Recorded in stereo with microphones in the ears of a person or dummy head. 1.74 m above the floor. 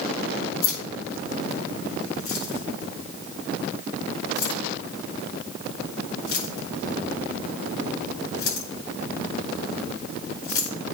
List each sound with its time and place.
0.6 s keys jangling: 80° left, 5 m